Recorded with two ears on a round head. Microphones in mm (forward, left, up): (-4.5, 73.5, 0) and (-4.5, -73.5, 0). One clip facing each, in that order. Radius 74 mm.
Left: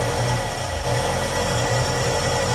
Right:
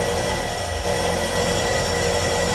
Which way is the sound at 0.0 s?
10° right (ahead or behind).